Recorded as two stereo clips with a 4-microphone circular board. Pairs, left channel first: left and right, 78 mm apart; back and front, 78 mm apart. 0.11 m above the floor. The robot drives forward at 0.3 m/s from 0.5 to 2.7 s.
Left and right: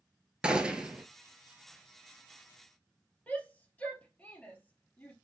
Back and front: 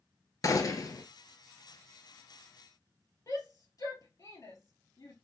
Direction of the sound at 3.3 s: 155° left.